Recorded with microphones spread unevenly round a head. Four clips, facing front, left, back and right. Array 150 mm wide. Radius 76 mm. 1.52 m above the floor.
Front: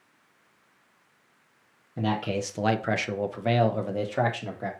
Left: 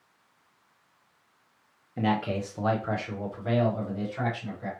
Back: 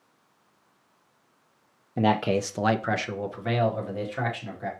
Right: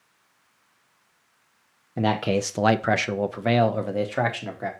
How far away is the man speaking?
About 0.5 m.